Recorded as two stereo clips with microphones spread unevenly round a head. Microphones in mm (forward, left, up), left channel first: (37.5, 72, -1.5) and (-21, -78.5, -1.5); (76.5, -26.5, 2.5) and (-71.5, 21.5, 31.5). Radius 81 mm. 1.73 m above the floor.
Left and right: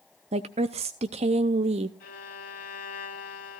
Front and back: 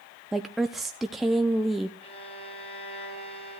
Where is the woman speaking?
125° right, 0.5 m.